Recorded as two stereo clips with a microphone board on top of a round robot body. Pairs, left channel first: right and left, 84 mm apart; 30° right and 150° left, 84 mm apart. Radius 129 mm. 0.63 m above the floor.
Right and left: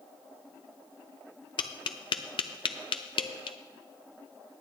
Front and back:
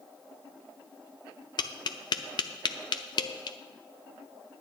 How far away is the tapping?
About 0.6 m.